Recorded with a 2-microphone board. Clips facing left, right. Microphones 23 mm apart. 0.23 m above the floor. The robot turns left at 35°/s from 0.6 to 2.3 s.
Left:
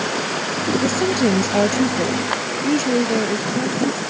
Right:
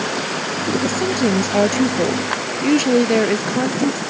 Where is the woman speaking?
20° left; by 4.0 s 35° right.